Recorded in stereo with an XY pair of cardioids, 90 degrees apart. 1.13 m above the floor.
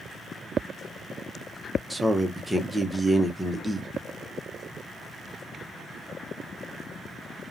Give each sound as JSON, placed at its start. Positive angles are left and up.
{"t": 1.9, "sound": "a man speaking", "azimuth_deg": -5, "distance_m": 0.9}